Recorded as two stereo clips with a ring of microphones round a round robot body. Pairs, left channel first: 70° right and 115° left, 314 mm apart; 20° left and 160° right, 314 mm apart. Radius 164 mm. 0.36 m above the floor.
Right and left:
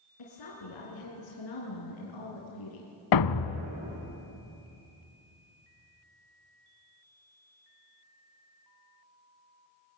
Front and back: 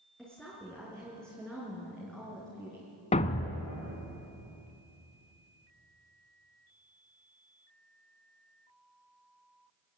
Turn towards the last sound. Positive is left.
turn(degrees=-50)